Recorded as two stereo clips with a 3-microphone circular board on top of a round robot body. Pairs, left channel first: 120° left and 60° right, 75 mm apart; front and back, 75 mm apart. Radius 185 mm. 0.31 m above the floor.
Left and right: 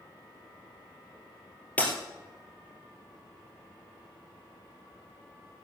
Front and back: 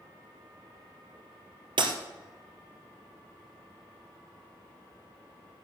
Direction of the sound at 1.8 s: 170° right.